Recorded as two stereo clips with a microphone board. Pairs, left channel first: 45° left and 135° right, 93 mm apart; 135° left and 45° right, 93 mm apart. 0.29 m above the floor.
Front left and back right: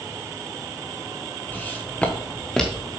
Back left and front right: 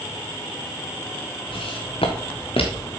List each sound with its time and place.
1.5 s footsteps: 115° left, 1.3 m; by 2.9 s 130° left, 3 m